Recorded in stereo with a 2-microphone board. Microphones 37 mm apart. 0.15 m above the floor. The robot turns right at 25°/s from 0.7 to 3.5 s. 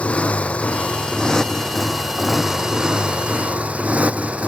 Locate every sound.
0.0 s a motorcycle: 145° left; by 4.5 s 145° right